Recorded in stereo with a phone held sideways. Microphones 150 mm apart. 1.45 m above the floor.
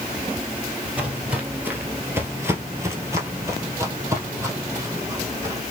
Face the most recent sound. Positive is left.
turn(degrees=-15)  # may be behind; listen again after turning